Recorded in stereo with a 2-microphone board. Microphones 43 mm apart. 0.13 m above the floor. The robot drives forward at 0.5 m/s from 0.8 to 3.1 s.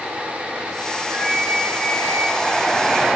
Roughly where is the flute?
Right.